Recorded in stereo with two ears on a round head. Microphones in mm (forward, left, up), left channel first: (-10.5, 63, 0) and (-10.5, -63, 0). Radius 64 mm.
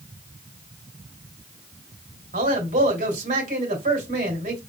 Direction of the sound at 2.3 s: 55° right (ahead or behind).